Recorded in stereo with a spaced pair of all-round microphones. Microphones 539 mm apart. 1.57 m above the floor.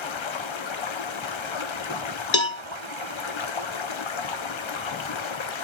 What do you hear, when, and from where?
0.0 s running water: 60° left (ahead or behind), 0.7 m
2.3 s a cowbell: 60° left (ahead or behind), 0.6 m